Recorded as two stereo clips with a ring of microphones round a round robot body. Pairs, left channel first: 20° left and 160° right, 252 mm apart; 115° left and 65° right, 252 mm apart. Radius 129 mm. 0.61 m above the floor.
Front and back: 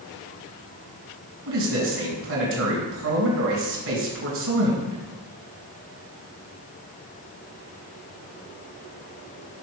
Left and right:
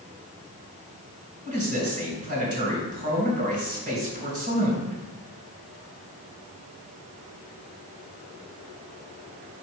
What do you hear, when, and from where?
1.4 s a man speaking: 125° right, 3.5 m